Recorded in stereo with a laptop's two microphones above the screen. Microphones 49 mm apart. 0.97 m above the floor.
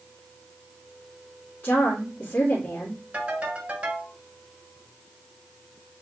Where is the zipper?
No zipper in this recording.